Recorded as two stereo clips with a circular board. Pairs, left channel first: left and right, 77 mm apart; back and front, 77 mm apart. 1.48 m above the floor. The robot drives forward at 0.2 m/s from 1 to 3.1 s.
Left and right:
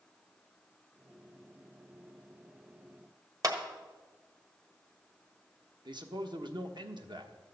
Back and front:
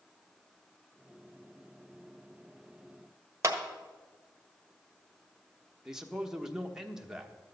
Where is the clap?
50° right, 1.4 m.